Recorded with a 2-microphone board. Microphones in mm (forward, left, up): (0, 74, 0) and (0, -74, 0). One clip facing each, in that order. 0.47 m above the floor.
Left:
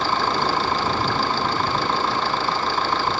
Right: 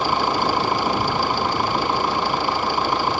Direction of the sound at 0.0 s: 15° right (ahead or behind).